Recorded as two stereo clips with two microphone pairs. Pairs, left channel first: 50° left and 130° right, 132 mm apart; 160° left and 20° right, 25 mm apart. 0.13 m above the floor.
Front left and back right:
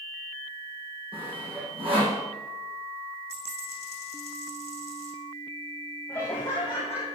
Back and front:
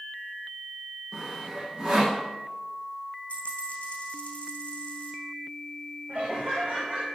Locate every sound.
1.1 s sawing: 85° right, 6.5 m
3.3 s a dropped coin: 160° right, 4 m
6.1 s laughter: 35° right, 5.5 m